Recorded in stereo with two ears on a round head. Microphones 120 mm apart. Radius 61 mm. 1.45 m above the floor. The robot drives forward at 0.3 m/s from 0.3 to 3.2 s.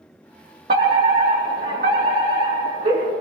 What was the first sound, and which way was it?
A fire alarm, 75° right (ahead or behind).